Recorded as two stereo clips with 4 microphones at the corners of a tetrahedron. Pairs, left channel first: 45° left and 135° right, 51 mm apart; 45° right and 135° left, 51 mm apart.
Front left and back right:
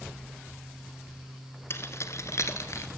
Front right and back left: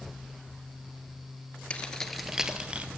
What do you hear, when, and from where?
1.7 s keys jangling: 15° left, 1.5 m; by 2.9 s 75° left, 2 m